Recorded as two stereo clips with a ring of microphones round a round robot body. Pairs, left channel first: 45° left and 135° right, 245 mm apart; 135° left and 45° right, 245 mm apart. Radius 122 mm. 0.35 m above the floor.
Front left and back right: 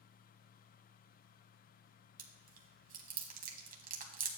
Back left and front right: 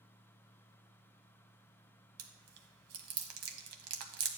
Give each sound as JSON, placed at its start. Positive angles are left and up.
{"t": 2.2, "sound": "chewing", "azimuth_deg": -75, "distance_m": 1.1}